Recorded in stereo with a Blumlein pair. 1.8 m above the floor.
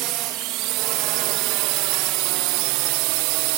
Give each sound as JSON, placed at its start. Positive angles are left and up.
{"t": 0.0, "sound": "a drone", "azimuth_deg": -40}